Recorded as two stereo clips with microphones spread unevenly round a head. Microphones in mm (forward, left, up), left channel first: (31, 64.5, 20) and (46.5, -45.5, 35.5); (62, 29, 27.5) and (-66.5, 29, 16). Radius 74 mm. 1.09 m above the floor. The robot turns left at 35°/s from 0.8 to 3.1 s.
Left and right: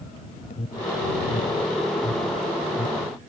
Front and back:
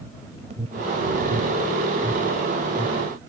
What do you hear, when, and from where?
0.5 s an alarm: 145° left; by 3.1 s 65° left